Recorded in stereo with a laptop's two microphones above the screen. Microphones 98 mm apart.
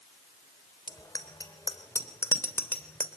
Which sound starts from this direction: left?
A bicycle bell, at 0.9 s.